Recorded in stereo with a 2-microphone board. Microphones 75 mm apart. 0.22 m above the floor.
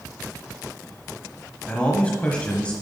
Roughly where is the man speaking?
Centre.